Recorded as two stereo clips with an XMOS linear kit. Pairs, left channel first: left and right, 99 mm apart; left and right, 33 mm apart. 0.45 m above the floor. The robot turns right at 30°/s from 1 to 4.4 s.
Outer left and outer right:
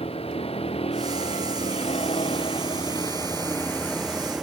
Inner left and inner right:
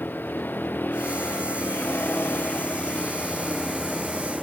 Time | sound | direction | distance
0.0 | a vehicle | 75° left (ahead or behind) | ?